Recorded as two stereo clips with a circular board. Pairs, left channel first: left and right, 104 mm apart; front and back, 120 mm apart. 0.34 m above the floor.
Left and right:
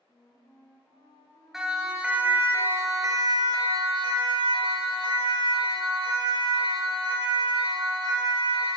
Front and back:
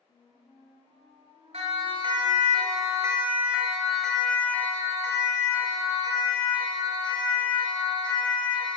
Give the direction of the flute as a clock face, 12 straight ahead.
11 o'clock.